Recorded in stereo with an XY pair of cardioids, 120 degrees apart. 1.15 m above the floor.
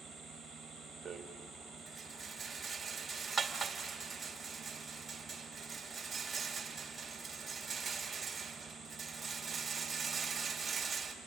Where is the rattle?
20° right, 2 m.